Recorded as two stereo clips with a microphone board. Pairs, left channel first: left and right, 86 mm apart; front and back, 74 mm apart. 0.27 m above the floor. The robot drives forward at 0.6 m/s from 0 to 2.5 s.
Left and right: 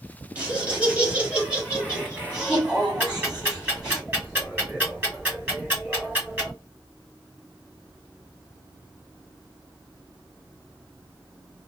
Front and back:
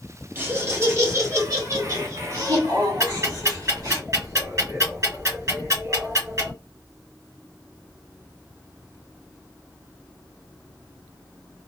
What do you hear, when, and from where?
0.3 s laughter: 150° right, 1.6 m; by 4.0 s 170° right, 2.5 m
3.0 s ticking: 155° right, 2.5 m